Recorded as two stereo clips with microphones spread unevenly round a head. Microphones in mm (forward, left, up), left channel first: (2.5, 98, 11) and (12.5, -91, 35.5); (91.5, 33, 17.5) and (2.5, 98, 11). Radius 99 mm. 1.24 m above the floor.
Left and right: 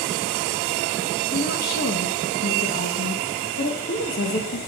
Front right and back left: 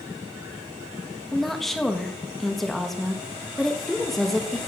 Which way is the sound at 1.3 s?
50° left.